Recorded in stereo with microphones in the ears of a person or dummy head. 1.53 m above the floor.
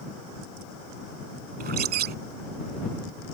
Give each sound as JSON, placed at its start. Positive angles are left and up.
{"t": 1.6, "sound": "a bird", "side_deg": -50}